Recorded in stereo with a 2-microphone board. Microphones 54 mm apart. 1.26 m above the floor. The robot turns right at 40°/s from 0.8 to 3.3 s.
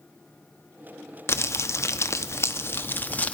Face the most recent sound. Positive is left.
turn(degrees=145)